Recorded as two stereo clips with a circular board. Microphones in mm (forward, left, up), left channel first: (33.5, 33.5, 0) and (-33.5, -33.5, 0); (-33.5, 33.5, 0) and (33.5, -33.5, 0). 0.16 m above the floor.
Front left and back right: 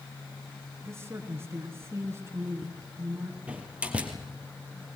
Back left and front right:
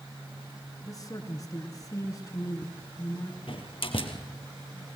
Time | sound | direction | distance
0.8 | a man speaking | 170° left | 2.5 m
3.5 | a door slam | 150° left | 2.5 m